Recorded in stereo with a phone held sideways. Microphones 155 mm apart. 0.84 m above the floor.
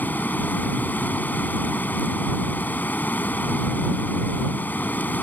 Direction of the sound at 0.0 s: 10° left (ahead or behind).